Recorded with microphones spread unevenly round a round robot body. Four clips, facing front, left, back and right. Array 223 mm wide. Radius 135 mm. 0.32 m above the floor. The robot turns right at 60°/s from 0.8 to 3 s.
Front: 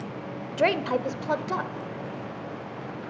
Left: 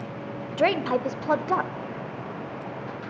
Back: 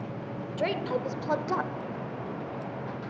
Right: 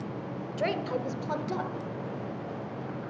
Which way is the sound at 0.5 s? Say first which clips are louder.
Left 8 dB, front 5 dB; 45° left.